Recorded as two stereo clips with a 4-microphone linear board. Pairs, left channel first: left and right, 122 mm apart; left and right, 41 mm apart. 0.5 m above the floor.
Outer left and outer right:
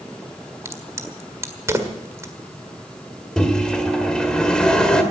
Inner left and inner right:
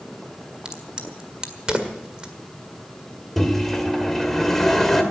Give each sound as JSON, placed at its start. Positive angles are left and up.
{"t": 0.7, "sound": "a crack", "side_deg": -25, "distance_m": 1.7}
{"t": 3.4, "sound": "a microwave", "side_deg": 5, "distance_m": 1.9}